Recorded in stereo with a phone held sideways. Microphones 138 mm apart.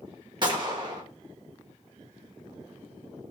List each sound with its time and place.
0.4 s a gunshot: 35° right (ahead or behind), 0.9 m